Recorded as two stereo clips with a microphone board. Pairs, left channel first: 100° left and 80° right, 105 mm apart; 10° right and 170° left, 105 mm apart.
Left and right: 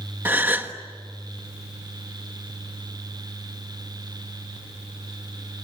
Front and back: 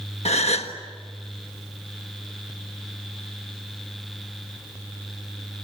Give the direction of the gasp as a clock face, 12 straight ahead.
12 o'clock.